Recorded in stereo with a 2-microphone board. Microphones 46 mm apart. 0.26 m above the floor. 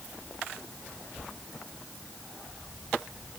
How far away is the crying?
I don't hear crying.